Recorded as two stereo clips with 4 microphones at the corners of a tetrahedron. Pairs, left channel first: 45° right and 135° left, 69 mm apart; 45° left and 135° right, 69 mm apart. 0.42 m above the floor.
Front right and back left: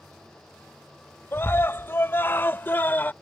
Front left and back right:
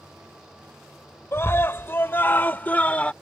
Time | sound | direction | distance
1.3 | a scream | straight ahead | ?